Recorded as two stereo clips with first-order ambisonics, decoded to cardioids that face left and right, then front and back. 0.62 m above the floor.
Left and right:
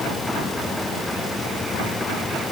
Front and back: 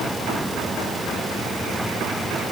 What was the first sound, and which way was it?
Only background noise.